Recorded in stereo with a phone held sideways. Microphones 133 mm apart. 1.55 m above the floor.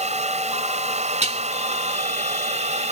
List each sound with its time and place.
0.0 s a fan: 60° right (ahead or behind)
1.2 s dishes clattering: 55° right (ahead or behind)